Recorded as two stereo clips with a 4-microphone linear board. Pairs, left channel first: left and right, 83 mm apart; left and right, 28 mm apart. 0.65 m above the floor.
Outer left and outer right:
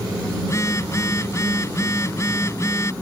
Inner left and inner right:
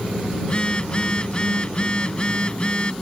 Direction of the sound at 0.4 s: 35° left (ahead or behind).